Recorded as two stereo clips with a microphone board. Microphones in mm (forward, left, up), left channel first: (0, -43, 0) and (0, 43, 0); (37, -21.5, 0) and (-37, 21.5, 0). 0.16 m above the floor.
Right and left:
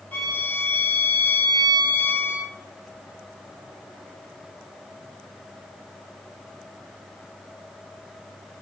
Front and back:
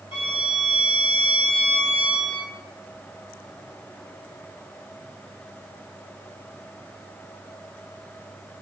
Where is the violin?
15° right, 6 m.